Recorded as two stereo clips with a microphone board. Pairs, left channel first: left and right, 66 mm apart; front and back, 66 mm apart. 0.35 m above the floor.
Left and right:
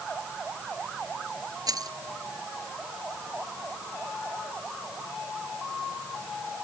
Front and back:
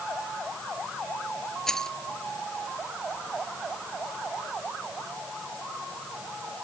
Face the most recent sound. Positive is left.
turn(degrees=-80)